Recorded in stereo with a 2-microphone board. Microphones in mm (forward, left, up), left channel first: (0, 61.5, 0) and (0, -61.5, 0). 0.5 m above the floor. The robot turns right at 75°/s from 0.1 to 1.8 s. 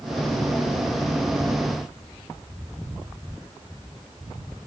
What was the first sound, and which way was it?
Only background noise.